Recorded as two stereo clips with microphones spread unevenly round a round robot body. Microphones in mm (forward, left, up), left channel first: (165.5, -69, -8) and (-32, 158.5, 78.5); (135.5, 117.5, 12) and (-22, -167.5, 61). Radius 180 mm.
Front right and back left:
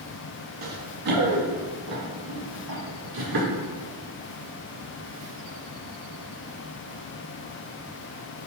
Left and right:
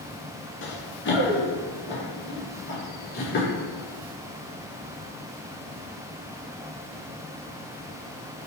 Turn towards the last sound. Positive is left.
turn(degrees=130)